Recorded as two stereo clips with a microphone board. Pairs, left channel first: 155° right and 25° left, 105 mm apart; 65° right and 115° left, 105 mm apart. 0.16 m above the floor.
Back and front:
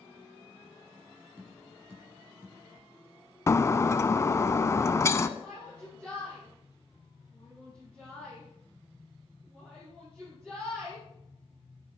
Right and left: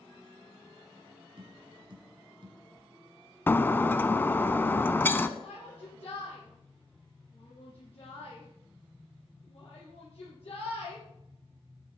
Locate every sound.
1.4 s tapping: 85° left, 2 m
3.5 s breaking glass: 120° right, 0.5 m
5.4 s a shout: 55° right, 4 m